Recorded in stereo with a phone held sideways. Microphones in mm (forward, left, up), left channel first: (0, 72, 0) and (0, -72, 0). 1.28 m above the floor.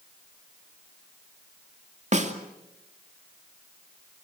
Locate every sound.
2.1 s a snare drum: 55° right (ahead or behind), 2.5 m